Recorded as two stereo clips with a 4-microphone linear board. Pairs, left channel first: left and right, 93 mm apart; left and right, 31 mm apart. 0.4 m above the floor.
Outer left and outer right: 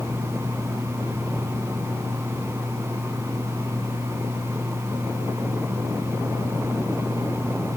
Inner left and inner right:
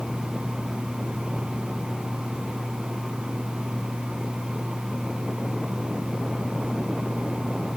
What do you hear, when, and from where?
Only background noise.